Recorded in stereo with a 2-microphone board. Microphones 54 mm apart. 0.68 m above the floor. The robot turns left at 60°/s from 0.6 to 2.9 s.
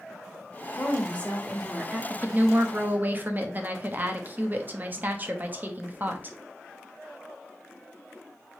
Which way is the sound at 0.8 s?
50° left.